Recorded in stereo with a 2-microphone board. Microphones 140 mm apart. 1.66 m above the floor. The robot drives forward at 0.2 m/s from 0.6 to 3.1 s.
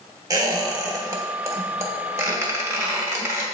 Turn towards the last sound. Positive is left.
turn(degrees=-20)  # may be behind; listen again after turning